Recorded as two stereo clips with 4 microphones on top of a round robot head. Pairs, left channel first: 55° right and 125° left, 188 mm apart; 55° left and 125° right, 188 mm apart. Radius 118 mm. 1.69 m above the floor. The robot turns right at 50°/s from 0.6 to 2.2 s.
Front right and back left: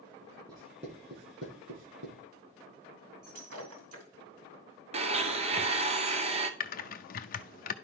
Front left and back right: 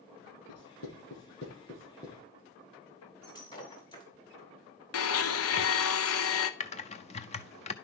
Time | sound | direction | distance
0.5 | writing | 55° left | 8.5 m
3.2 | breaking glass | 125° left | 2.5 m
4.9 | a blender | 65° left | 0.8 m
6.6 | typing on a keyboard | 5° right | 0.6 m